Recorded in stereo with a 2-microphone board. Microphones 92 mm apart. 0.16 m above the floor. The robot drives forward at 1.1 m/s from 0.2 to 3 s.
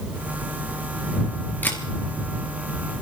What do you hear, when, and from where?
1.6 s a camera shutter: 20° left (ahead or behind), 2.5 m